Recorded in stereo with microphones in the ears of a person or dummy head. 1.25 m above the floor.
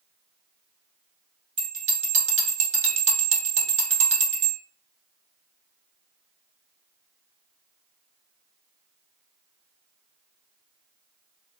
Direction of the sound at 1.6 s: 35° right (ahead or behind).